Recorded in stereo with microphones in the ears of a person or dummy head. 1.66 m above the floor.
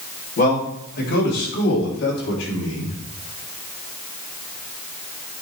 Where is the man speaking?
45° left (ahead or behind), 3.5 m; by 3.0 s 75° left (ahead or behind), 4 m.